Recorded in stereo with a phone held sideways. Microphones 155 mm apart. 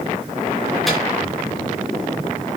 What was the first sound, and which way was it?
A microwave, centre (ahead or behind).